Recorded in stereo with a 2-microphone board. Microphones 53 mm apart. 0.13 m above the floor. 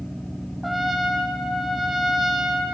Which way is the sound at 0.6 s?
5° right (ahead or behind).